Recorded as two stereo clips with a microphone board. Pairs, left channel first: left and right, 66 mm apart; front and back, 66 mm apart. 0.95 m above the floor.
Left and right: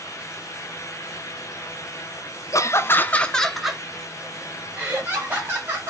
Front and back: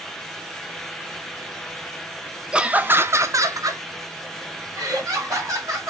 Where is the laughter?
105° left, 0.6 m; by 5.9 s 150° right, 1.9 m.